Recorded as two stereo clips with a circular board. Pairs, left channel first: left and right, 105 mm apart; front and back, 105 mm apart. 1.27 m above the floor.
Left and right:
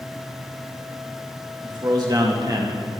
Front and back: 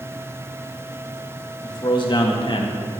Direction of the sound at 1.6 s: 45° right.